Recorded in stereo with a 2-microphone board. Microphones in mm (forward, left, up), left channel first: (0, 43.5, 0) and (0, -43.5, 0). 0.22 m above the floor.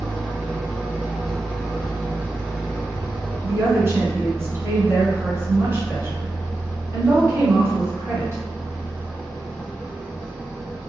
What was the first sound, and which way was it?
An engine running, 5° left (ahead or behind).